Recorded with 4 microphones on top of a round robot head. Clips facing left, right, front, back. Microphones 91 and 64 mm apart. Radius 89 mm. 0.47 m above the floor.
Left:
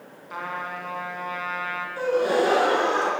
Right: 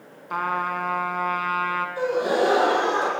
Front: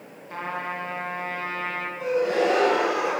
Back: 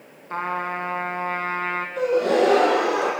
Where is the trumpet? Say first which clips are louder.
Right 7 dB, back 4 dB; 125° right, 3 m.